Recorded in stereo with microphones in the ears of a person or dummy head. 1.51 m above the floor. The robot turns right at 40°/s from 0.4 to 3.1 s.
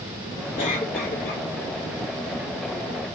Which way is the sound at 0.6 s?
35° left.